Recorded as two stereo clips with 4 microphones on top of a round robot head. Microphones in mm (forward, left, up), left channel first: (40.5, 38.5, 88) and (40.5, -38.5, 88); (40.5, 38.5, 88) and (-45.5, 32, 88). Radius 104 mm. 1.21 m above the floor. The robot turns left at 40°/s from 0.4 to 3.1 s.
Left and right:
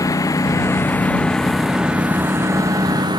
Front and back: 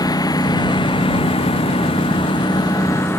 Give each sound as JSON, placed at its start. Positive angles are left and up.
{"t": 0.0, "sound": "a lawn mower", "azimuth_deg": 45}